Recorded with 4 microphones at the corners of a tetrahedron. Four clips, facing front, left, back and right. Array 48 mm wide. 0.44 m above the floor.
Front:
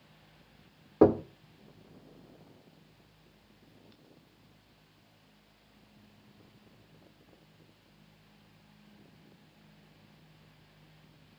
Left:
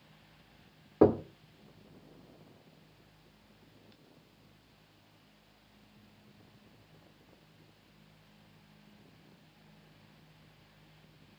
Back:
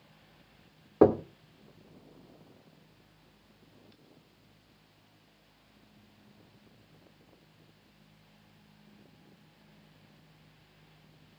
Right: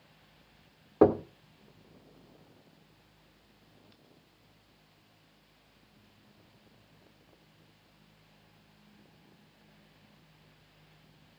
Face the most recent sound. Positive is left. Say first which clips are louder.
# right 1 dB, even
turn(degrees=-115)